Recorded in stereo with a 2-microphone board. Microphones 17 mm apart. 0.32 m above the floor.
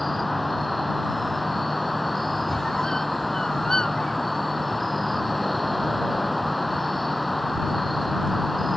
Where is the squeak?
45° left (ahead or behind).